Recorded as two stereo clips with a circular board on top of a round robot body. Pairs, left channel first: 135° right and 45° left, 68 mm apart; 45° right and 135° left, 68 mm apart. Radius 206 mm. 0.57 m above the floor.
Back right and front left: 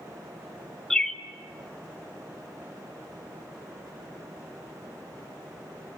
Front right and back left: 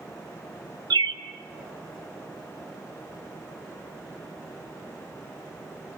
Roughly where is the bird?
Behind left.